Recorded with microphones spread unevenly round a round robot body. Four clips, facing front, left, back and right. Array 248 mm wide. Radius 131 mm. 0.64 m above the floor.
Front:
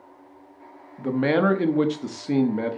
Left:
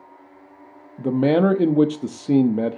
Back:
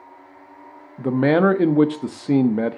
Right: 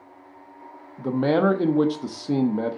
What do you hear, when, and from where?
1.0 s a man speaking: 130° left, 0.8 m